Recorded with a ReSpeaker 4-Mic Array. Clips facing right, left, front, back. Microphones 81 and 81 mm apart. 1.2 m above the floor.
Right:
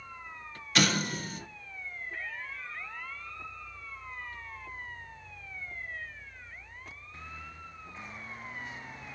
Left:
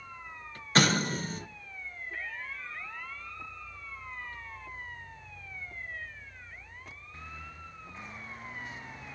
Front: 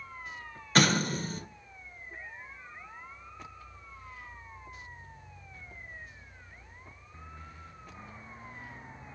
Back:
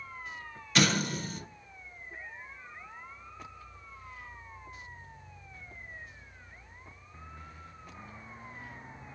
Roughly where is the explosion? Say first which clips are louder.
Left 2 dB, front 2 dB; ahead left.